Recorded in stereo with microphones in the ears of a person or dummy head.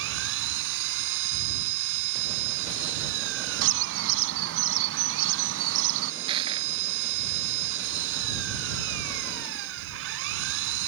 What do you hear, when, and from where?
0.0 s an engine running: 75° right (ahead or behind)
3.6 s a bird: 75° right (ahead or behind)
6.3 s crushing: 25° right (ahead or behind)